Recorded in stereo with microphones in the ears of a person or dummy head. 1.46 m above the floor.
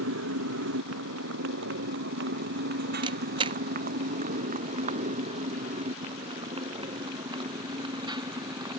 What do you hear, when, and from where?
0.0 s a motorcycle: 85° right; by 8.8 s 20° right (ahead or behind)
3.0 s a camera shutter: 30° right (ahead or behind)